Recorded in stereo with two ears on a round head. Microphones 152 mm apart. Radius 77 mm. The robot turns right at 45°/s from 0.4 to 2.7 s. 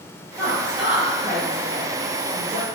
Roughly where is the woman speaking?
Centre.